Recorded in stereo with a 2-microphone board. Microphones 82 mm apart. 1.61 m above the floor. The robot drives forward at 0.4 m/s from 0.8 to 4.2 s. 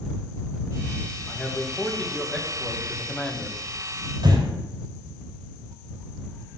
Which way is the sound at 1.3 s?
10° left (ahead or behind).